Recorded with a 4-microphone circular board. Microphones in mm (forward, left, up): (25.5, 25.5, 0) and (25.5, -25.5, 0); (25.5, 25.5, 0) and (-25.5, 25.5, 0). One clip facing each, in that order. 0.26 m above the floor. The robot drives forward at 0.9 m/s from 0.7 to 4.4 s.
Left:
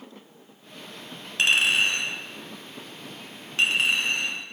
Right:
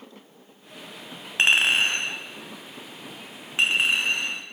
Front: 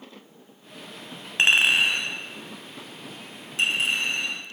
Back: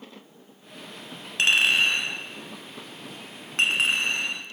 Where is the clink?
45° right, 1.1 m; by 4.4 s 165° right, 2.5 m.